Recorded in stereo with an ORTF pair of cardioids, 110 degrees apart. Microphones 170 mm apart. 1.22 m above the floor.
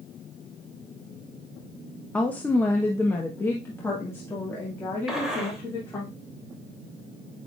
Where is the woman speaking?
10° left, 0.7 m; by 6.1 s 15° left, 3 m.